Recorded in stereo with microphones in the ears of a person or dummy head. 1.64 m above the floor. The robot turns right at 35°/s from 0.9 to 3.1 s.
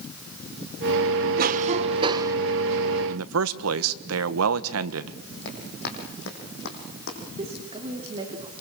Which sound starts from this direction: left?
Running footsteps, at 5.5 s.